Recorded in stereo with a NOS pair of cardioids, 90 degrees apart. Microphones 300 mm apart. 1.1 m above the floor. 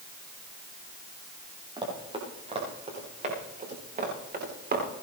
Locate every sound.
1.8 s running footsteps: 15° right, 9.5 m; by 4.8 s 30° right, 9.5 m